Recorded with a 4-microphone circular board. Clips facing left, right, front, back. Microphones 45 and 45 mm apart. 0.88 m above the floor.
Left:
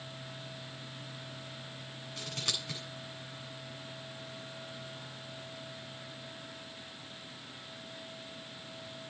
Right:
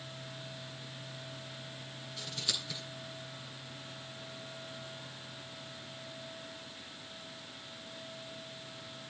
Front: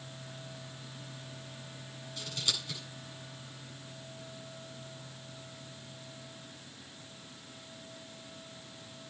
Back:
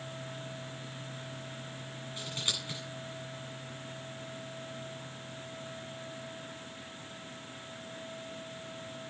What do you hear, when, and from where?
2.2 s scissors: 115° left, 9 m